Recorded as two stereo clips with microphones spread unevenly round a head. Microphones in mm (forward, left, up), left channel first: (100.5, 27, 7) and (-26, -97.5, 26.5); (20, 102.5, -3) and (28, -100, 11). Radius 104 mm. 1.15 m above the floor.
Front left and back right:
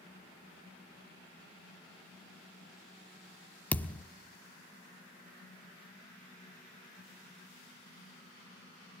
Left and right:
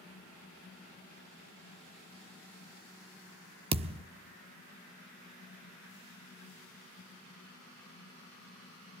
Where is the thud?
40° right, 0.9 m.